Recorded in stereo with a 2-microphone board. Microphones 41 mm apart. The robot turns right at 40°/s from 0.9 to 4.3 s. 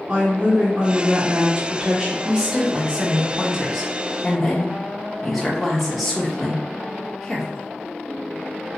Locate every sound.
0.1 s a woman speaking: 20° right (ahead or behind), 1.3 m; by 2.1 s 15° right (ahead or behind), 1.3 m
2.2 s a woman speaking: 25° right (ahead or behind), 1.1 m; by 7.6 s centre (ahead or behind), 1.1 m